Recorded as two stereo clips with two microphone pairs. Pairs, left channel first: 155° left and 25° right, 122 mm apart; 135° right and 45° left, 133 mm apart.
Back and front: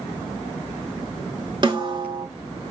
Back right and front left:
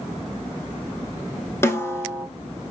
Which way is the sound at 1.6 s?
65° right.